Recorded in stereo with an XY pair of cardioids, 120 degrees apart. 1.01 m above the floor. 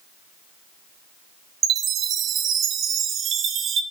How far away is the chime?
About 0.6 m.